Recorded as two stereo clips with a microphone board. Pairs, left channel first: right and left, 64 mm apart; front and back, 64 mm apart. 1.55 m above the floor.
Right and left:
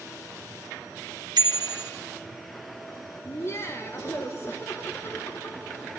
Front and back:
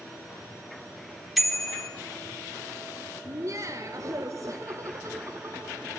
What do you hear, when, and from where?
1.4 s a bicycle bell: 90° left, 3 m
3.2 s laughter: 140° right, 2 m